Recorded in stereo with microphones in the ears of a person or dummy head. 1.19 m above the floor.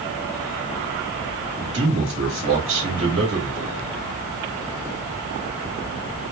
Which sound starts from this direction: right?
A man speaking, at 1.6 s.